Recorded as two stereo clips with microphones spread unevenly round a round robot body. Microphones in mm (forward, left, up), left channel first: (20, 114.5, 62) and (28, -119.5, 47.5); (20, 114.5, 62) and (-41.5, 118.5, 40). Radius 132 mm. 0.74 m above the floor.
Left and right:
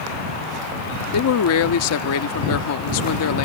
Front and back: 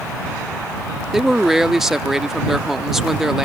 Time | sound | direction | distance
1.1 | a man speaking | 100° left | ?